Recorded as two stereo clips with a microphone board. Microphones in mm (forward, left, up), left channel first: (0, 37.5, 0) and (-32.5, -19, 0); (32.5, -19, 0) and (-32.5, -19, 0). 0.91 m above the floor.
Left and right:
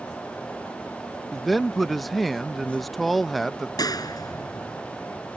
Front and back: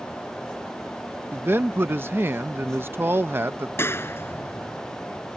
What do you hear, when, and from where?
1.3 s a man speaking: 150° left
3.8 s a clap: 50° left